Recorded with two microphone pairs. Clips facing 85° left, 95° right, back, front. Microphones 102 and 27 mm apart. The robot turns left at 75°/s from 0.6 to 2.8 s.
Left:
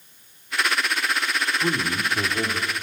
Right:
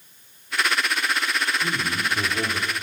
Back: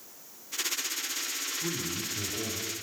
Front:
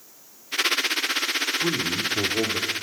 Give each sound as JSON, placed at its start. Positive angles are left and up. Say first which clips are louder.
{"t": 1.6, "sound": "a man speaking", "louder": "left 2 dB, front 9 dB", "azimuth_deg": 55, "distance_m": 3.0}